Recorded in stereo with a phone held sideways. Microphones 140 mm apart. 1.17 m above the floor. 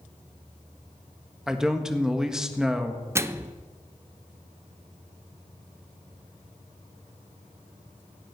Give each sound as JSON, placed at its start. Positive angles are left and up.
{"t": 1.5, "sound": "a man speaking", "side_deg": -5, "distance_m": 1.5}
{"t": 3.1, "sound": "a microwave", "side_deg": -20, "distance_m": 0.6}